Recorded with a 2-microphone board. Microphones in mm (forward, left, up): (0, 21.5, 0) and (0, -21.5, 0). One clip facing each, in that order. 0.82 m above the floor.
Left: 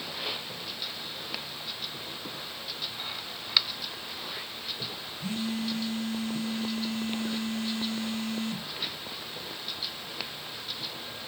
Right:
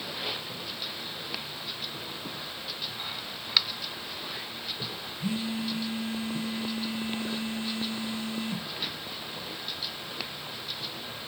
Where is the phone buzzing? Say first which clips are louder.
Right 1 dB; 25° right (ahead or behind), 1.0 m.